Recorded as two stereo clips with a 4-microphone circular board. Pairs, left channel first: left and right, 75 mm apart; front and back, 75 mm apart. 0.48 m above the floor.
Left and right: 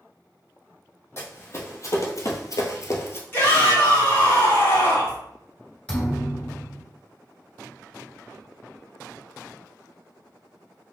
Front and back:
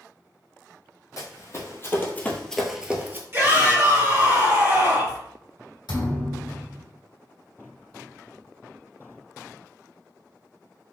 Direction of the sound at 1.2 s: 40° left.